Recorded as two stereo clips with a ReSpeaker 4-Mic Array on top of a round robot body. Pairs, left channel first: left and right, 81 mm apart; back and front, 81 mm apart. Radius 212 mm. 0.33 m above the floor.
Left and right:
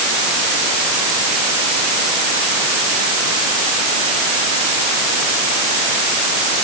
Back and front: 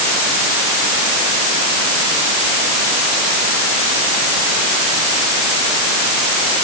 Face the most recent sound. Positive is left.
No sound to turn to.